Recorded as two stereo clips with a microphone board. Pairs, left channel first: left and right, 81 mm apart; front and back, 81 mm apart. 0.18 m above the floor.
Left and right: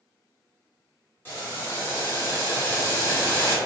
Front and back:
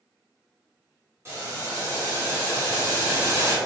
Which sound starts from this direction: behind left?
Boiling, at 1.2 s.